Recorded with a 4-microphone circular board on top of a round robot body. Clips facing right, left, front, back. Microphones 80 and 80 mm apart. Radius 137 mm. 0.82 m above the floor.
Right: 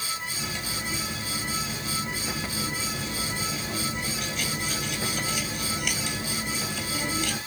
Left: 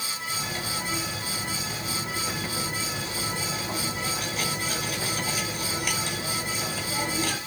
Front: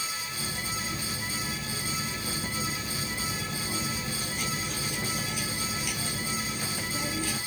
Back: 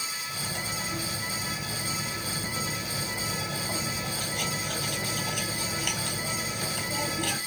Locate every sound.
0.3 s cutlery clinking: 140° left, 2 m